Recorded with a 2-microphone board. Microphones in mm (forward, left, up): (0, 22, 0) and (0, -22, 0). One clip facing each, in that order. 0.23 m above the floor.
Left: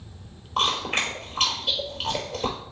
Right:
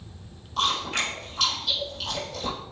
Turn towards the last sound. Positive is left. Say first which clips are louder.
# left 2 dB
turn(degrees=45)  # may be behind; listen again after turning